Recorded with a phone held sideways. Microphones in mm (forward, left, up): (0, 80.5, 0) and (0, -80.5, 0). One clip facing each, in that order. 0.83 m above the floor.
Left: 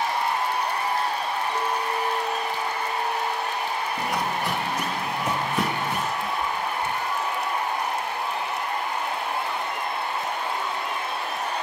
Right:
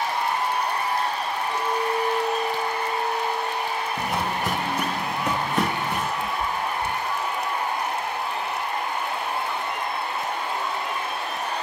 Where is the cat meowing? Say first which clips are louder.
Right 1 dB; 65° right (ahead or behind), 3 m.